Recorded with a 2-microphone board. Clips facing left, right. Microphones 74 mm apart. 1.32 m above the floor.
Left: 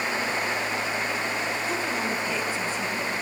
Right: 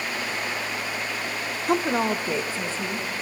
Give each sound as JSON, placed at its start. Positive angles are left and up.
{"t": 1.7, "sound": "a woman speaking", "side_deg": -55, "distance_m": 0.6}